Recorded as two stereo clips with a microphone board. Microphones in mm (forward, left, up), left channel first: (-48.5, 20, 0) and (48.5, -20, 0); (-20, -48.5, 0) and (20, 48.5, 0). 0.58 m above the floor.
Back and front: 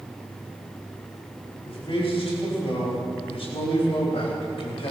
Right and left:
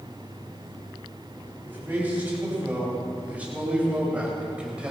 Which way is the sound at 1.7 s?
140° left.